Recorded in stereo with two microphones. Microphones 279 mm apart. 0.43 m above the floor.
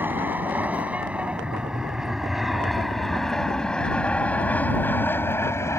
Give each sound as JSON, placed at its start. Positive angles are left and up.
{"t": 0.0, "sound": "an aircraft", "side_deg": -5}